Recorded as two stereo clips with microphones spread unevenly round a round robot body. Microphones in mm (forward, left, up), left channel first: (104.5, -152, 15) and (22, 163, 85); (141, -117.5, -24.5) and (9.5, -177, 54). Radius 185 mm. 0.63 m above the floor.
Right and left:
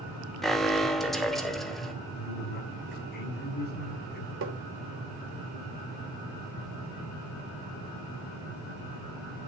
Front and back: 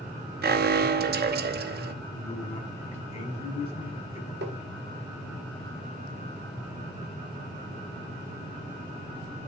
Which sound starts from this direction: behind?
Tapping, at 4.4 s.